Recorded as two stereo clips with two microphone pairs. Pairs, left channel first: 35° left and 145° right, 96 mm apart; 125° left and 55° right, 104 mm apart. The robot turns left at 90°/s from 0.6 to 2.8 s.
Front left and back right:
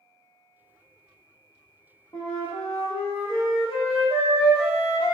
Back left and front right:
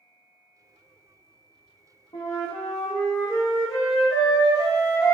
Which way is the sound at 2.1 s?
85° left.